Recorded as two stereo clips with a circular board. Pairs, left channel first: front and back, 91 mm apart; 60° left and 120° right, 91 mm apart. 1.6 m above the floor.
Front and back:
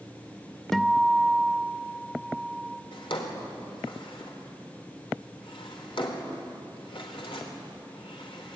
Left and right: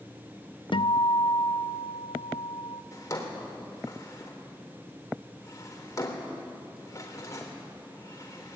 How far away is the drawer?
About 3.5 m.